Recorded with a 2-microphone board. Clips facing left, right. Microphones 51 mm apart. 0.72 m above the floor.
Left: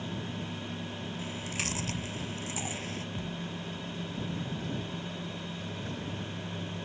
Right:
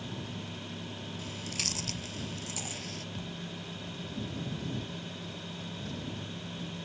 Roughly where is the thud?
Centre.